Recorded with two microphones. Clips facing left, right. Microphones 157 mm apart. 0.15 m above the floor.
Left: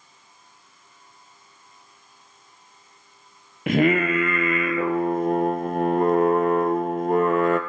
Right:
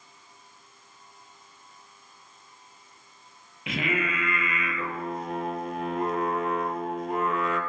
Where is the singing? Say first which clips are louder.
Left 10 dB; 55° left (ahead or behind), 0.6 m.